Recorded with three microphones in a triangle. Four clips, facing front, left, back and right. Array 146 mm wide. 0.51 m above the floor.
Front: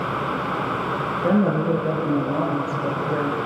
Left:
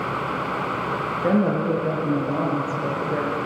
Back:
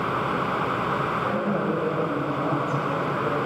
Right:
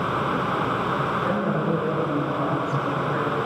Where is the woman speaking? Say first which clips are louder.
Left 3 dB, front 5 dB; 45° left, 8 m; by 3.4 s 40° left, 7 m.